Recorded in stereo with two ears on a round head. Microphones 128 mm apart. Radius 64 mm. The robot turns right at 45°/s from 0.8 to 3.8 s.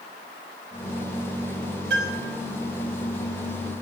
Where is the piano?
85° right, 4.5 m; by 2.3 s 65° right (ahead or behind), 4.5 m.